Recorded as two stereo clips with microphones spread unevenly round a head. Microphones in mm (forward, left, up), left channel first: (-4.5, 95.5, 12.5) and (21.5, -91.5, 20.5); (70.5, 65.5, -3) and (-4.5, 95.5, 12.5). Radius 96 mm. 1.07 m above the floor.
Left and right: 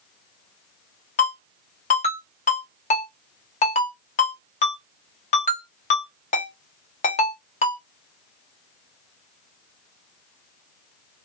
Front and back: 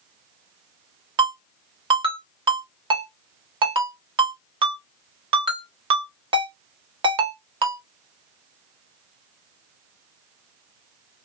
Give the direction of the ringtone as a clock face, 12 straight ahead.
7 o'clock.